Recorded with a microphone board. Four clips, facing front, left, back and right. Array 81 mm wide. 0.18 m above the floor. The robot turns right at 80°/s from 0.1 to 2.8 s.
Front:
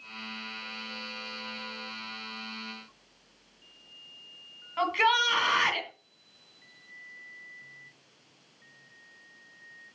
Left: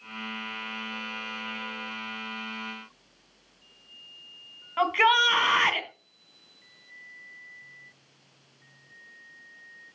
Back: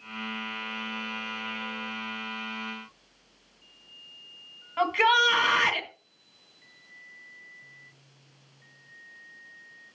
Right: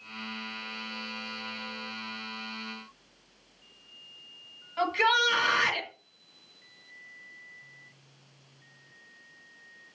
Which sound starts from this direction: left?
A shout, at 4.8 s.